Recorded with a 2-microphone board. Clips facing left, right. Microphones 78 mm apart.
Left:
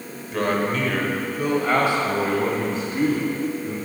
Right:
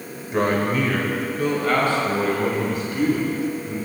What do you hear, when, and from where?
0.3 s a man speaking: 20° right (ahead or behind), 1.3 m; by 3.8 s 30° left (ahead or behind), 3.5 m